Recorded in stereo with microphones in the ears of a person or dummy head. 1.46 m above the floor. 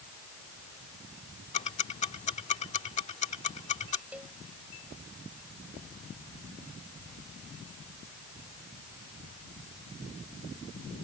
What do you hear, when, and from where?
1.5 s ticking: 35° left (ahead or behind)
4.1 s a cowbell: centre (ahead or behind)